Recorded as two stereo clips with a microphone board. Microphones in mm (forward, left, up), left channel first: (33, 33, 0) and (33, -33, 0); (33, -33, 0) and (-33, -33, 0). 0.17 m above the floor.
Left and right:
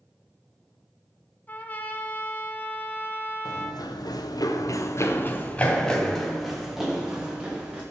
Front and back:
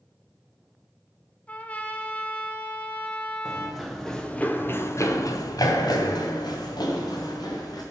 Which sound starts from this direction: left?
Running footsteps, at 3.5 s.